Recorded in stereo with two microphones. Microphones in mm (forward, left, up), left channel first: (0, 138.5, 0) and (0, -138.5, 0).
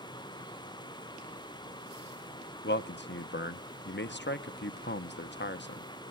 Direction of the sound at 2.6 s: 40° left (ahead or behind).